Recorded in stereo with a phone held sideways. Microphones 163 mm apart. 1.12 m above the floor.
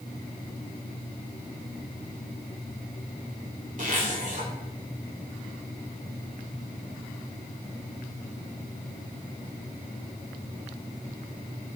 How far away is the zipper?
About 3 m.